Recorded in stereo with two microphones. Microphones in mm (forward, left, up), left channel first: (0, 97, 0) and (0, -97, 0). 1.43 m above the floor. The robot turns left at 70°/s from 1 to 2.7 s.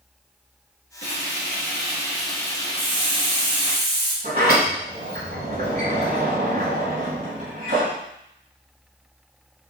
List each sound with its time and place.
1.0 s frying: 90° right, 2 m; by 3.8 s 150° left, 2 m
2.8 s a hiss: 55° right (ahead or behind), 2 m
4.2 s a sliding door: 55° right (ahead or behind), 2.5 m